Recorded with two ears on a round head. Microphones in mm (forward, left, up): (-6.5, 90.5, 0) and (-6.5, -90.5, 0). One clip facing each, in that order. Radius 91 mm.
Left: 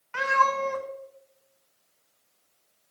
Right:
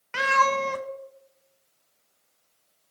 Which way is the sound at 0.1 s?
45° right (ahead or behind).